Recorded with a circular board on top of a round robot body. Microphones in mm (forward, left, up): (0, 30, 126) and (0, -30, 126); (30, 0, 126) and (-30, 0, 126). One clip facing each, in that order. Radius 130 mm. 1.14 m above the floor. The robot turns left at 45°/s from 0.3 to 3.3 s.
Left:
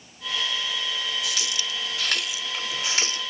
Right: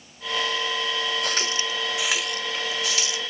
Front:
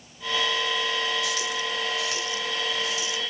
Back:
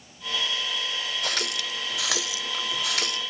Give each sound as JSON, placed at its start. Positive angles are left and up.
{"t": 1.2, "sound": "a running tap", "azimuth_deg": -135}